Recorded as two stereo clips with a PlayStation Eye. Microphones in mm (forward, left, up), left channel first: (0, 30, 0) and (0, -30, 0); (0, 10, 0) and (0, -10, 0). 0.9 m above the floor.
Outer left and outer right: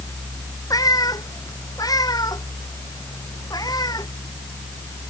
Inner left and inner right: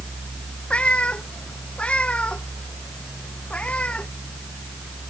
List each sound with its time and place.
0.7 s a cat meowing: 70° left (ahead or behind); by 4.1 s 85° left